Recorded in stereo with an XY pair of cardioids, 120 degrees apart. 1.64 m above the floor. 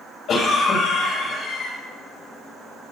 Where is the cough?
65° left, 3.5 m.